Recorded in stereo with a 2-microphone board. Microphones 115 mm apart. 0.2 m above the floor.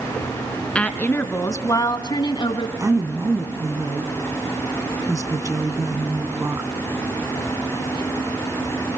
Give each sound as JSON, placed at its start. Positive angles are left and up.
{"t": 0.8, "sound": "a woman speaking", "side_deg": 10, "distance_m": 1.8}
{"t": 2.8, "sound": "a woman speaking", "side_deg": -25, "distance_m": 1.9}